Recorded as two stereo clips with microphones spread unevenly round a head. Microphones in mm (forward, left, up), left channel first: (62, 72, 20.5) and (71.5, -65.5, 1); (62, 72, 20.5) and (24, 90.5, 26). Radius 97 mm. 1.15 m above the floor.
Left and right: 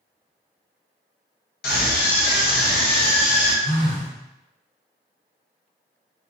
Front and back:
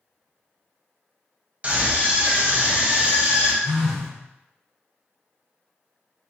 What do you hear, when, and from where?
1.6 s a scream: 90° left, 1.2 m
3.6 s a phone buzzing: 55° left, 1.3 m